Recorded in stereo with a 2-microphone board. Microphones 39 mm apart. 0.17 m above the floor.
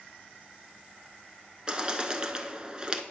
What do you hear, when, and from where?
1.7 s a bird: 25° right (ahead or behind), 0.7 m